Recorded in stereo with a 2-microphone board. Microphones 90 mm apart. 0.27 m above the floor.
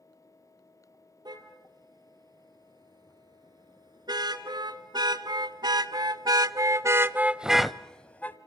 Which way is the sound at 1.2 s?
50° right (ahead or behind).